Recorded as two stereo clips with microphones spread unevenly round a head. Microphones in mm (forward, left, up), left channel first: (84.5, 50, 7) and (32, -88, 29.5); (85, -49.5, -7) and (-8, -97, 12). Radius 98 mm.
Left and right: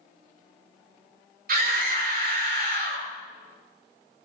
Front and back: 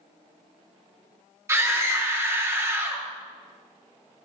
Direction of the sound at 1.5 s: 90° right.